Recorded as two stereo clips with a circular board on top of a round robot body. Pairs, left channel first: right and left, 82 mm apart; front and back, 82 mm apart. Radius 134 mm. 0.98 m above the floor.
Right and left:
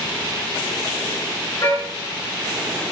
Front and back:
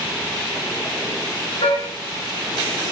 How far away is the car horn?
About 5.5 m.